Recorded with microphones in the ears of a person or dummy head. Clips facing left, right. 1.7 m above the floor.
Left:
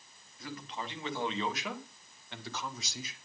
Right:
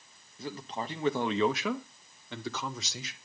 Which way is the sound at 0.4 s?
30° right (ahead or behind).